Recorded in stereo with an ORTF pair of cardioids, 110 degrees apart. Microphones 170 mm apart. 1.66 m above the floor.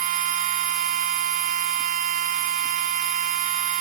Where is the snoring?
I don't hear snoring.